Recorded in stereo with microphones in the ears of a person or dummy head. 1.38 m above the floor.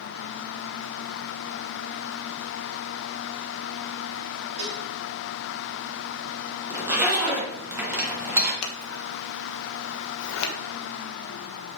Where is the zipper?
15° right (ahead or behind), 2.5 m.